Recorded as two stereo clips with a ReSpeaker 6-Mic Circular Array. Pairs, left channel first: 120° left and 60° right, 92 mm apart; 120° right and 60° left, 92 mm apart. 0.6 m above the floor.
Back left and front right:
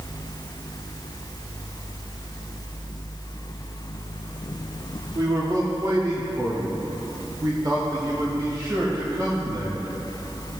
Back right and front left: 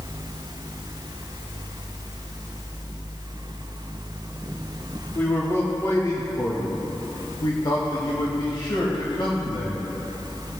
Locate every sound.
5.2 s a man speaking: 60° right, 1.2 m; by 9.9 s 105° right, 3.5 m